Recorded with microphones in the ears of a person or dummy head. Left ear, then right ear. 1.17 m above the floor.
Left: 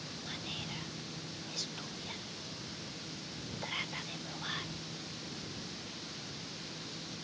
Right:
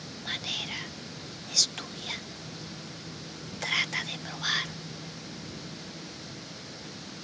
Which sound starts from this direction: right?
Whispering, at 0.2 s.